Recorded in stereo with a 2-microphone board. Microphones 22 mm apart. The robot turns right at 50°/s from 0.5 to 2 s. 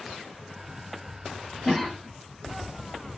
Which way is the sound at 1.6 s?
15° right (ahead or behind).